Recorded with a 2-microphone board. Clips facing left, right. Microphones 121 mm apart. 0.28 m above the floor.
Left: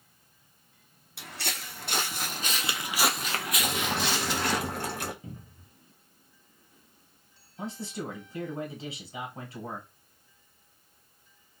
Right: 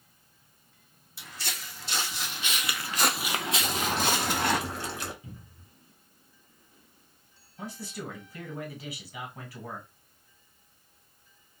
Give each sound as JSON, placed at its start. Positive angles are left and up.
{"t": 1.2, "sound": "footsteps", "side_deg": 70, "distance_m": 1.2}
{"t": 3.6, "sound": "boiling", "side_deg": 50, "distance_m": 1.0}
{"t": 5.2, "sound": "a cupboard door", "side_deg": 40, "distance_m": 1.4}
{"t": 7.6, "sound": "a man speaking", "side_deg": 25, "distance_m": 1.8}